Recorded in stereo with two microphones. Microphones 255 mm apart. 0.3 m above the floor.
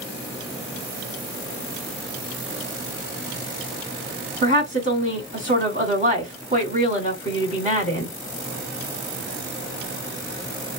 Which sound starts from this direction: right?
A woman speaking, at 4.4 s.